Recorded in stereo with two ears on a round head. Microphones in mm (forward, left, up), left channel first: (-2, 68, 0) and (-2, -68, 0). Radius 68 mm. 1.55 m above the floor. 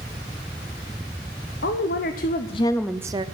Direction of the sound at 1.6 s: 75° left (ahead or behind).